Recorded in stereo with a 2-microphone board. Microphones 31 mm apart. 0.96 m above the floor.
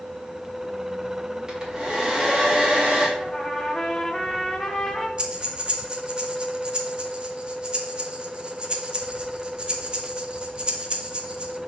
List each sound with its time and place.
1.5 s a hair dryer: 20° right (ahead or behind), 2.0 m
3.2 s a trumpet: 20° left (ahead or behind), 1.1 m
5.2 s breathing: 30° right (ahead or behind), 0.9 m